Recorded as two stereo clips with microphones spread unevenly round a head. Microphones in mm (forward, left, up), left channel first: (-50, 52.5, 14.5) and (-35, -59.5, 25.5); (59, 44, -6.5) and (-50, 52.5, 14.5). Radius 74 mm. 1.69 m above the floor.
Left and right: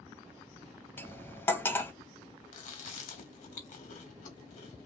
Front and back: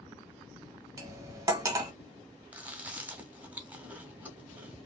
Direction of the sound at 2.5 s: 100° left.